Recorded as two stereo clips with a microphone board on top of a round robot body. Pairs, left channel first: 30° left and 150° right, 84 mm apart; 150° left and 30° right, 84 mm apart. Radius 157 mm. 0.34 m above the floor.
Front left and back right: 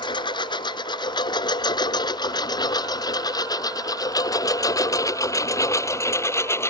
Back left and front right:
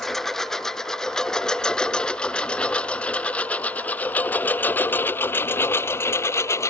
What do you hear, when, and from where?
0.0 s a lawn mower: 65° left; by 6.7 s 90° left